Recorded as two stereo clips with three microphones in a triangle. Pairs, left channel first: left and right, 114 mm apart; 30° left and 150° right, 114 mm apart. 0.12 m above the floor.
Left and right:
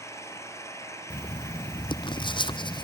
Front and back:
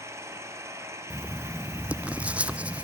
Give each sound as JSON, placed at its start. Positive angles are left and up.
{"t": 0.0, "sound": "an engine running", "azimuth_deg": 150, "distance_m": 3.0}
{"t": 1.1, "sound": "writing", "azimuth_deg": 130, "distance_m": 0.9}